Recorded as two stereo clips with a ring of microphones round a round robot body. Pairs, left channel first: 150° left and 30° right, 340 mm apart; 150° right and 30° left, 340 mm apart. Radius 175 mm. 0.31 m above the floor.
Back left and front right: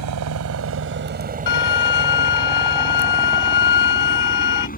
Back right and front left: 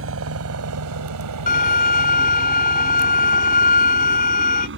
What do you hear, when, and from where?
0.0 s a helicopter: 10° right; by 4.8 s 85° left
1.5 s a violin: 145° left